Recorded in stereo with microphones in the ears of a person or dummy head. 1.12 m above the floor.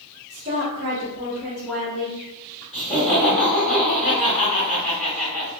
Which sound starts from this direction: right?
A woman speaking, at 0.3 s.